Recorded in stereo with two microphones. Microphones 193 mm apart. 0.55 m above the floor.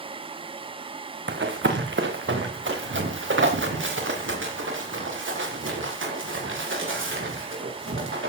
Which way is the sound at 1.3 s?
65° right (ahead or behind).